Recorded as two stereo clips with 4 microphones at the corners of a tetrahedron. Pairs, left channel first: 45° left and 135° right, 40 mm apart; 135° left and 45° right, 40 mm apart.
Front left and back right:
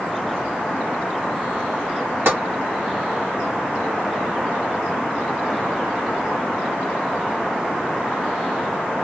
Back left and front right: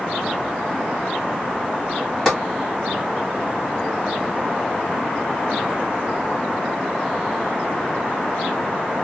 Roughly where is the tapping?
Behind right.